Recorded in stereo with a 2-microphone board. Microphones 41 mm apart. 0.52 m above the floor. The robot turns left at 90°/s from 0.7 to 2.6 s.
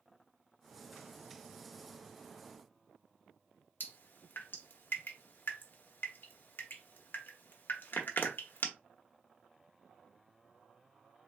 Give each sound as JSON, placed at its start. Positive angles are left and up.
{"t": 3.8, "sound": "dripping", "side_deg": 55, "distance_m": 1.0}